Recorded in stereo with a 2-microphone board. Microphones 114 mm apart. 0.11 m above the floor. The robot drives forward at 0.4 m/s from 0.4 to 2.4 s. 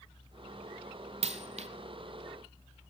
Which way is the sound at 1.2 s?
70° right (ahead or behind).